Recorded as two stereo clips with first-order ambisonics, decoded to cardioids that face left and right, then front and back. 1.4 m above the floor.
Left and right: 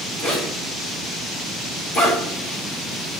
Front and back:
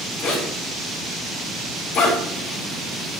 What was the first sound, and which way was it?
A zipper, 35° left.